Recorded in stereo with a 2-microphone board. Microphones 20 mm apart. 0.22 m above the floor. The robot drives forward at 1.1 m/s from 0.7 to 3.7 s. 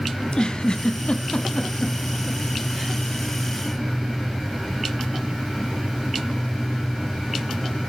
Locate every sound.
0.2 s a giggle: 45° left (ahead or behind), 0.6 m; by 3.0 s 10° left (ahead or behind), 2 m